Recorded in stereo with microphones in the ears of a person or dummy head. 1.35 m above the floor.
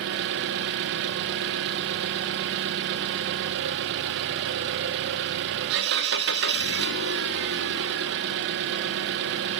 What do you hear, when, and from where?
0.0 s an engine running: 65° right (ahead or behind), 0.9 m